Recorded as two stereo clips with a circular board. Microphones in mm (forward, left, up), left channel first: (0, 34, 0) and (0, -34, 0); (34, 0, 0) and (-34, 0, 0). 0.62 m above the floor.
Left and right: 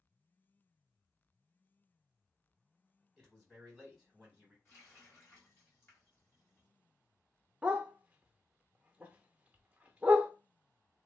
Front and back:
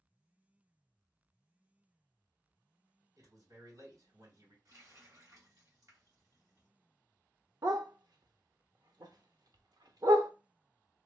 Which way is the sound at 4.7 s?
140° left.